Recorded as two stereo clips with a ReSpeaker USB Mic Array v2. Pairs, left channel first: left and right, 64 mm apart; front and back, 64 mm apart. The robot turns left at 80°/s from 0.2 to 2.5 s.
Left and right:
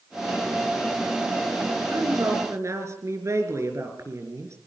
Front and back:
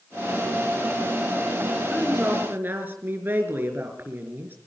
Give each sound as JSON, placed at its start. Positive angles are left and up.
{"t": 1.9, "sound": "a woman speaking", "azimuth_deg": -80, "distance_m": 4.5}